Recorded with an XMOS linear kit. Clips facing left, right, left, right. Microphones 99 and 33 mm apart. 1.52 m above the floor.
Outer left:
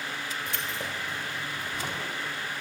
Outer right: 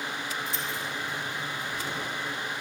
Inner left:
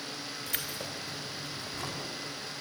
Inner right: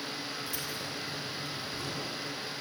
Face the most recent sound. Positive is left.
turn(degrees=65)  # may be behind; listen again after turning